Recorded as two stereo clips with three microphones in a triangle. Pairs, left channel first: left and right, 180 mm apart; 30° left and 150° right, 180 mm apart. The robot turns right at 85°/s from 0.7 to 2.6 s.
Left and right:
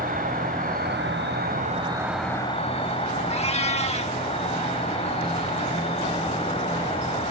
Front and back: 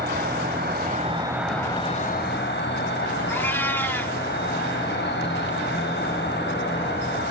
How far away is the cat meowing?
About 1.1 m.